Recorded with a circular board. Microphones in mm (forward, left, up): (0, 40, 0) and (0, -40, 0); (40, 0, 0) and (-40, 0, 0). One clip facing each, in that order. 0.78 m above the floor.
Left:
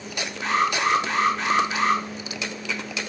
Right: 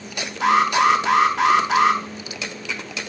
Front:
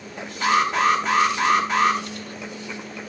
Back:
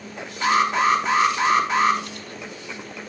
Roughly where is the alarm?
Right.